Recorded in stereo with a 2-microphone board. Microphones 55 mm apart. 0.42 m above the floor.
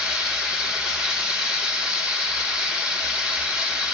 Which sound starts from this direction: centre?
Running water, at 0.0 s.